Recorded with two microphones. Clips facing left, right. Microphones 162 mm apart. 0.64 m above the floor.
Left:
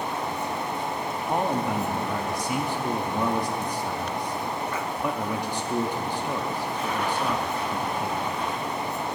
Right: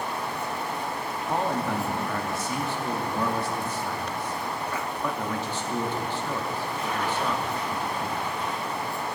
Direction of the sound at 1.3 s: 15° left (ahead or behind).